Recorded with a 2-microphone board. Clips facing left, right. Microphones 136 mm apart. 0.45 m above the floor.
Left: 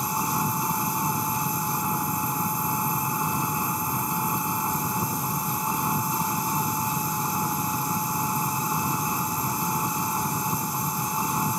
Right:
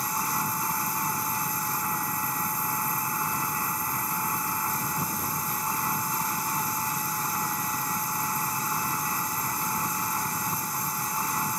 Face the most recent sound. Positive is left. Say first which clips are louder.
# left 4 dB
turn(degrees=20)  # may be behind; listen again after turning